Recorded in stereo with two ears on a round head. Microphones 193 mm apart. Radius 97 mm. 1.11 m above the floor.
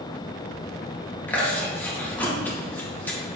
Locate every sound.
1.3 s chewing: 10° left (ahead or behind), 1.7 m